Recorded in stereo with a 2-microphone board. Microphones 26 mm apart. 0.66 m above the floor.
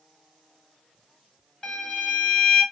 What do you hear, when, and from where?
1.6 s a violin: 25° left (ahead or behind), 1.8 m